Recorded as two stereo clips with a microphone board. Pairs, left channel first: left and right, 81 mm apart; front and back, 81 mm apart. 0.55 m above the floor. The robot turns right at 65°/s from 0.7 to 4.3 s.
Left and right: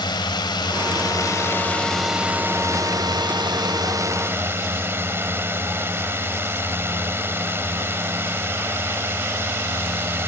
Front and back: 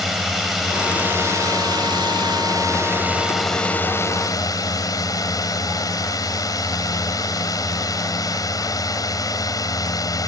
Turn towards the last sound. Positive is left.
turn(degrees=-35)